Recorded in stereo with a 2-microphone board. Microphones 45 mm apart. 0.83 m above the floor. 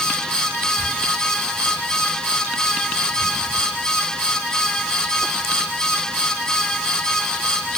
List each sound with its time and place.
Only background noise.